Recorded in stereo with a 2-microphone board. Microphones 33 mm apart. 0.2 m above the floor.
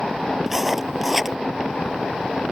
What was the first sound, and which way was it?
Writing, 10° right (ahead or behind).